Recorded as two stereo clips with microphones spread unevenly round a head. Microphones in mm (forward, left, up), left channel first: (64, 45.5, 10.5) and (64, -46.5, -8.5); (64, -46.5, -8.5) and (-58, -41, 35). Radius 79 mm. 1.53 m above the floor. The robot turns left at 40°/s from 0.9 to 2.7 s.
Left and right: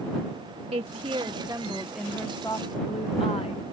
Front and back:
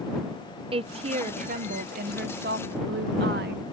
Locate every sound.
0.7 s a woman speaking: 135° right; by 3.6 s 155° left